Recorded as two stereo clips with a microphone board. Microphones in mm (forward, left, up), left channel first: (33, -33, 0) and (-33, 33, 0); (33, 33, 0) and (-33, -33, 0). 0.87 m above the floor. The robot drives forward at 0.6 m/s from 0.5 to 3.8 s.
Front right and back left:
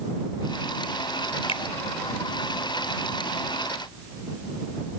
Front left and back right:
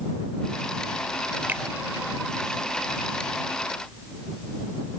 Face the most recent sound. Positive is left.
turn(degrees=-85)